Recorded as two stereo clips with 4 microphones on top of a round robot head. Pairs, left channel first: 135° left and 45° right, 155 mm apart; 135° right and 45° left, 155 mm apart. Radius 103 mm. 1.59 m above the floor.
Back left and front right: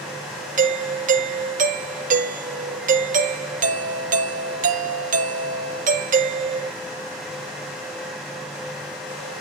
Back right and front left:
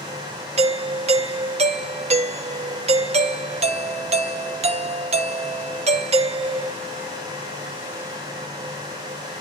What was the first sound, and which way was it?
A doorbell, 5° right.